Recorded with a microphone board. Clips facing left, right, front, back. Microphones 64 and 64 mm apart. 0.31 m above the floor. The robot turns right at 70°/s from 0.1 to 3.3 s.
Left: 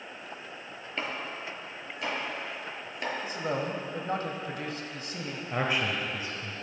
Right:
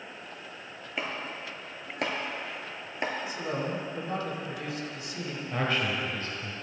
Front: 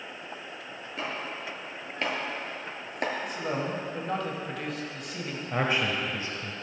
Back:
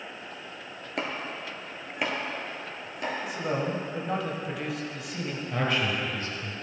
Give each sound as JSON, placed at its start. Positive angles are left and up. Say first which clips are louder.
{"t": 1.0, "sound": "chopping", "louder": "even, back 2 dB", "azimuth_deg": -175, "distance_m": 1.5}
{"t": 3.2, "sound": "a man speaking", "louder": "left 1 dB, back 2 dB", "azimuth_deg": 90, "distance_m": 1.3}
{"t": 5.5, "sound": "a man speaking", "louder": "even, front 1 dB", "azimuth_deg": 35, "distance_m": 1.0}